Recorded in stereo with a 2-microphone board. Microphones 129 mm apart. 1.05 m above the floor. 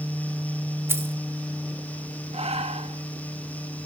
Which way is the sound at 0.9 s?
20° right (ahead or behind).